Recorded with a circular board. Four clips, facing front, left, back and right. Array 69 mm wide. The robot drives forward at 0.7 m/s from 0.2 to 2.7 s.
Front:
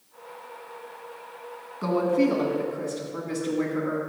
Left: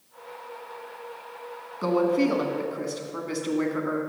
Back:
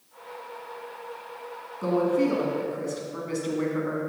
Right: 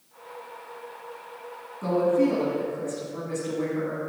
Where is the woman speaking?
70° left, 1.8 m; by 4.0 s 95° left, 1.7 m.